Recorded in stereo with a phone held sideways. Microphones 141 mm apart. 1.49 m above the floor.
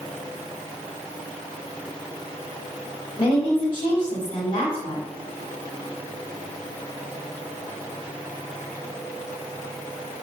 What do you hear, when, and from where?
3.2 s a woman speaking: 40° left (ahead or behind), 1.1 m